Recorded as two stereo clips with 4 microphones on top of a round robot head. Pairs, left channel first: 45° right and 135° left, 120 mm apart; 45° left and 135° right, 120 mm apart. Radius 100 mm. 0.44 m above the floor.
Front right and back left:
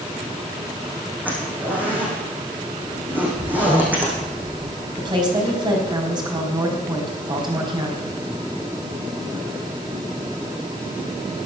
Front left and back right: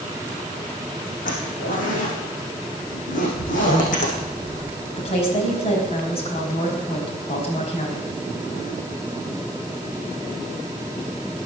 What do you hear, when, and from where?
1.2 s a zipper: 55° left, 6 m
3.2 s a child speaking: 10° left, 4.5 m
5.0 s a woman speaking: 80° left, 4.5 m